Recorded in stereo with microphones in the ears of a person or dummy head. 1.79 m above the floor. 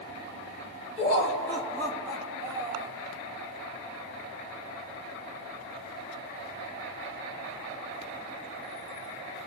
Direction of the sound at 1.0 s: 20° left (ahead or behind).